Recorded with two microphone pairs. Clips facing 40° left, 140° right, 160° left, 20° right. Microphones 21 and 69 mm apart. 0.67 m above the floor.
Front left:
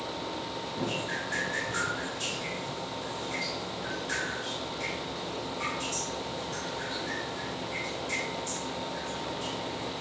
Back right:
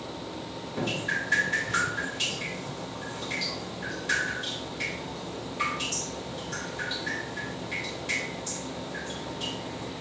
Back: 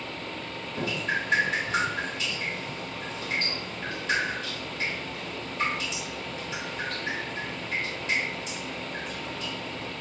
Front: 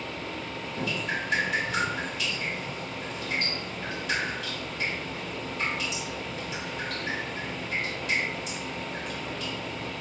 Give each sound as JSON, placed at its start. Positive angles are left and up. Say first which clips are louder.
{"t": 0.8, "sound": "dripping", "louder": "back right 4 dB, back 2 dB", "azimuth_deg": -150, "distance_m": 2.5}